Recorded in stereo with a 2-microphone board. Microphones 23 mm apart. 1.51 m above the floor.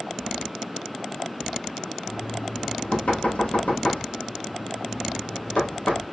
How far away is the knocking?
About 2.5 m.